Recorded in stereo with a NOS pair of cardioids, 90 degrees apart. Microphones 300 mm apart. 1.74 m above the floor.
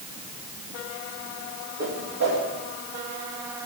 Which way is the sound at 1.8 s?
60° right.